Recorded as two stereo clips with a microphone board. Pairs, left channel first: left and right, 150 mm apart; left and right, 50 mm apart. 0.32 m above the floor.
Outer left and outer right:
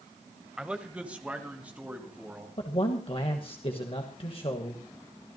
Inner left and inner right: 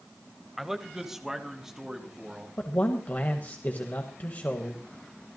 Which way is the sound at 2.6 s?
40° left (ahead or behind).